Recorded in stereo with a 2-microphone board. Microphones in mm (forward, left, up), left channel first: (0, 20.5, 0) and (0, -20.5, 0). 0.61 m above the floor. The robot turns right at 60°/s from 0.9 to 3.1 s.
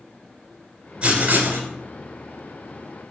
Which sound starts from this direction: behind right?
Writing, at 1.0 s.